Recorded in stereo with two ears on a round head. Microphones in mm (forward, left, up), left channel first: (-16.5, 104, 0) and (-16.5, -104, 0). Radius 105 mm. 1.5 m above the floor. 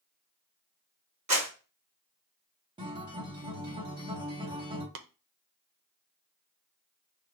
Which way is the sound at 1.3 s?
25° right (ahead or behind).